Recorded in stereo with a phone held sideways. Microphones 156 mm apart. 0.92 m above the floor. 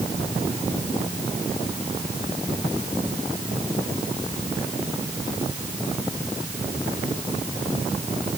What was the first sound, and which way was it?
Only background noise.